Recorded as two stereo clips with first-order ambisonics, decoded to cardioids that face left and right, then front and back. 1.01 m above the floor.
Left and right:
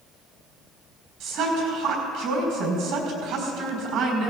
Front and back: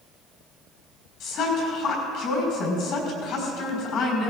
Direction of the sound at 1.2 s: 40° right.